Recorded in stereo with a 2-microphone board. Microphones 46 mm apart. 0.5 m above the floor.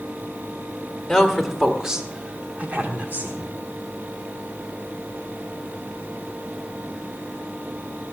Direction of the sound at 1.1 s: 5° left (ahead or behind).